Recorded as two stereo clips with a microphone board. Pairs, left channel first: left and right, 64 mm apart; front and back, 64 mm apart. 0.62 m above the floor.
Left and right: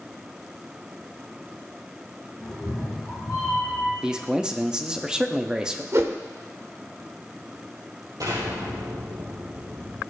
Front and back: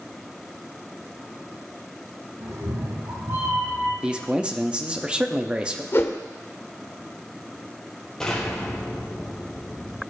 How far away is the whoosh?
About 0.8 m.